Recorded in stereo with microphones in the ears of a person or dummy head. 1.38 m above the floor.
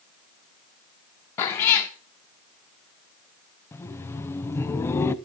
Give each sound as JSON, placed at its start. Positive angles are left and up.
{"t": 1.4, "sound": "a cat meowing", "side_deg": 15, "distance_m": 0.5}
{"t": 3.7, "sound": "laughter", "side_deg": 15, "distance_m": 0.5}